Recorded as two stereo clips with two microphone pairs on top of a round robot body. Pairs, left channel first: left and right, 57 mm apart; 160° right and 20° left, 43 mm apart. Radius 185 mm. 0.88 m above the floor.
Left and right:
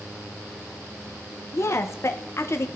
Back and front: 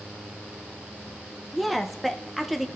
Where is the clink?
No clink in this recording.